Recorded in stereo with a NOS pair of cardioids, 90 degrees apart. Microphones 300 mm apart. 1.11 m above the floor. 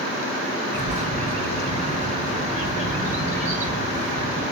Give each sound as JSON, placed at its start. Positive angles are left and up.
{"t": 0.7, "sound": "a bird", "azimuth_deg": -25, "distance_m": 3.5}